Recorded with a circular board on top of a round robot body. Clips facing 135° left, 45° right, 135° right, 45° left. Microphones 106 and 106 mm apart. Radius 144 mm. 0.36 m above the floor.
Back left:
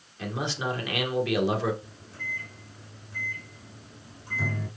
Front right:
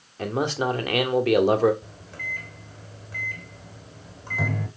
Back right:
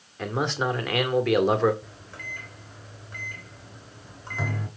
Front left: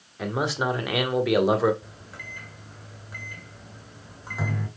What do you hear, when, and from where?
0.2 s a man speaking: 40° right, 2.0 m
1.8 s a microwave: 40° right, 2.5 m